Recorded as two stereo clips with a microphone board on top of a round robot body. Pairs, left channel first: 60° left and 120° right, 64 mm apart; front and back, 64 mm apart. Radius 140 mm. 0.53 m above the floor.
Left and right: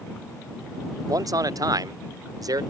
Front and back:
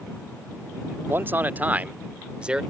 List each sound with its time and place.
1.1 s a man speaking: 125° right; by 2.6 s 105° right